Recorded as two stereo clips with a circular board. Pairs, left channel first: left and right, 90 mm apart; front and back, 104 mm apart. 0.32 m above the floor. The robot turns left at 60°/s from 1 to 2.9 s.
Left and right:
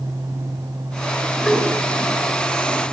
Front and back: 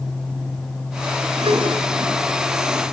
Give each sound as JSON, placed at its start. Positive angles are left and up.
{"t": 1.4, "sound": "a whoosh", "azimuth_deg": -175, "distance_m": 5.0}